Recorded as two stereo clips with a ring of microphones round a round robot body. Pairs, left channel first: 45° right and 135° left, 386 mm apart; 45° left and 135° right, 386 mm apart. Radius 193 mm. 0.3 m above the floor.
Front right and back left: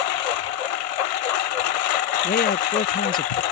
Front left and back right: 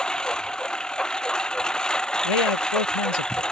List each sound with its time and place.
0.0 s a lawn mower: 45° right
2.2 s a man speaking: 25° left